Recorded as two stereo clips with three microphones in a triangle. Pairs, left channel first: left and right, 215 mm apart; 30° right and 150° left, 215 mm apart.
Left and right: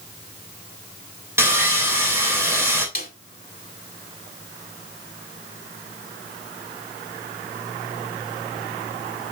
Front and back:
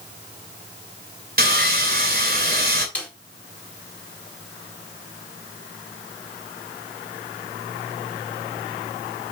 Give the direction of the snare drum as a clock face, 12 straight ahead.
10 o'clock.